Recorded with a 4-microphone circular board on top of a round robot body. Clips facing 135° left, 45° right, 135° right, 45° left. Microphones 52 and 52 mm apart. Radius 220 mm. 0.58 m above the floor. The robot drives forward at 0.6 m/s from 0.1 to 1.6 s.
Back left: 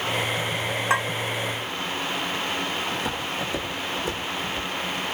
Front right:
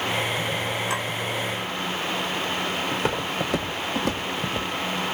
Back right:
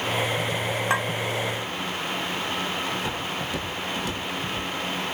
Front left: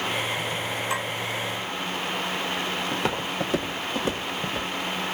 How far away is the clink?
About 2.5 m.